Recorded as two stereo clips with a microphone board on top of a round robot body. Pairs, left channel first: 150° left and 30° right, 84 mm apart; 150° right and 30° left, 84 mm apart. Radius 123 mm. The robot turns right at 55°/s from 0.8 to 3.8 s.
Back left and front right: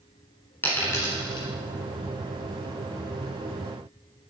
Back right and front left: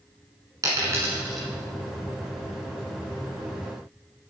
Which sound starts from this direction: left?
A dropped coin, at 0.6 s.